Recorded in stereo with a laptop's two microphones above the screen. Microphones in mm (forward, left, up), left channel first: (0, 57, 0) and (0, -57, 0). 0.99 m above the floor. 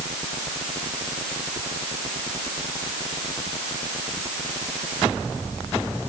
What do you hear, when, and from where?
Only background noise.